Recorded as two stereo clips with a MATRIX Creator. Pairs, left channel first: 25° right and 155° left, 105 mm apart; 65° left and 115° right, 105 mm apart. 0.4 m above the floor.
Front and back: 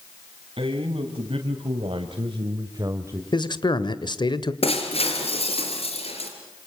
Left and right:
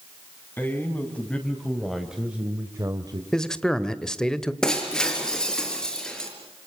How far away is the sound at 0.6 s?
About 3 m.